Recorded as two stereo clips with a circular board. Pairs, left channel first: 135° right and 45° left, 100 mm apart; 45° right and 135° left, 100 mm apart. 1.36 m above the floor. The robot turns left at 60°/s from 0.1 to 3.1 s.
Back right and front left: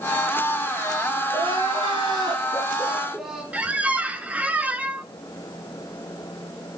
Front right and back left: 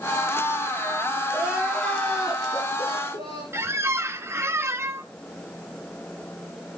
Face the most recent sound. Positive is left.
turn(degrees=105)